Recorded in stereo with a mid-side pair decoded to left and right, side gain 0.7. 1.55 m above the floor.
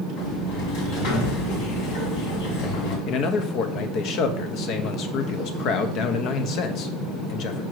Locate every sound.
0.2 s a sliding door: 70° left, 2 m
3.1 s a man speaking: 55° left, 1.1 m